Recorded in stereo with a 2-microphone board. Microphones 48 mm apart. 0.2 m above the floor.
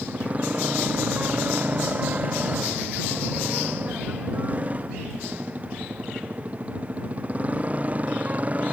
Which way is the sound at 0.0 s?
30° right (ahead or behind).